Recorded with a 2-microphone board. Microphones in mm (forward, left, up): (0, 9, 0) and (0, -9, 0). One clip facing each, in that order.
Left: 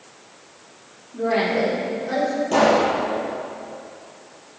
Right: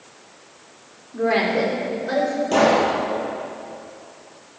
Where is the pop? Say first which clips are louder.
Even; 10° right (ahead or behind), 6 m.